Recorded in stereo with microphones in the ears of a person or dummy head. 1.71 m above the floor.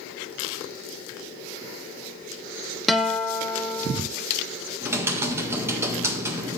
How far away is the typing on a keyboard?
About 1.6 m.